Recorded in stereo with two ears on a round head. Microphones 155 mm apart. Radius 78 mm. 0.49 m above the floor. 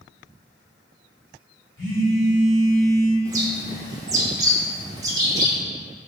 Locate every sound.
1.8 s a phone buzzing: 25° left (ahead or behind), 1.2 m
3.2 s a bird: 20° right (ahead or behind), 0.5 m